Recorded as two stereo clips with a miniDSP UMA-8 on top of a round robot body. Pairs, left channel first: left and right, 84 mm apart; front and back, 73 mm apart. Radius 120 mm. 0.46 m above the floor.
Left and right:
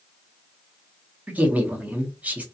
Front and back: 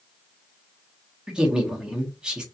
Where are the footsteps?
I don't hear footsteps.